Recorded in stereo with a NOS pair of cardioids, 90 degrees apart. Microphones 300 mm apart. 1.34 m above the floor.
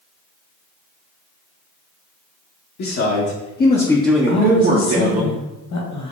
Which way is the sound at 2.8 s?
65° left.